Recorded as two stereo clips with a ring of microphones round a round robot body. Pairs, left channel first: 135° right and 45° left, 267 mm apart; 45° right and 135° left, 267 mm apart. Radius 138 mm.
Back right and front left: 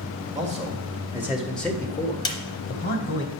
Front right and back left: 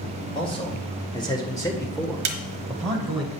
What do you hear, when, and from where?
0.3 s a man speaking: 10° left, 1.5 m; by 3.2 s 135° right, 1.7 m
2.2 s a snare drum: 155° left, 0.9 m